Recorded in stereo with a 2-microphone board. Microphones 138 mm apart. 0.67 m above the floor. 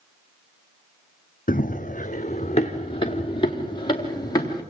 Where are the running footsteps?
70° left (ahead or behind), 1.8 m; by 4.6 s 25° left (ahead or behind), 5.5 m.